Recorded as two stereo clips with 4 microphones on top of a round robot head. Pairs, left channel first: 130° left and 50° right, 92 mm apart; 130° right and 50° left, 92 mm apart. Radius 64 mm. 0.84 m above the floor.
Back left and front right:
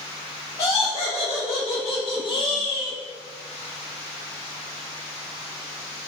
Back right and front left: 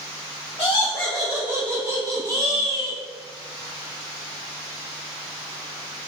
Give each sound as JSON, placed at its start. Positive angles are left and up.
{"t": 0.6, "sound": "laughter", "azimuth_deg": 180, "distance_m": 0.7}